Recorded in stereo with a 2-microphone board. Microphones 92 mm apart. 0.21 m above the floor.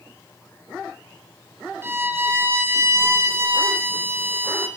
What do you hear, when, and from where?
1.8 s a violin: 30° right (ahead or behind), 0.8 m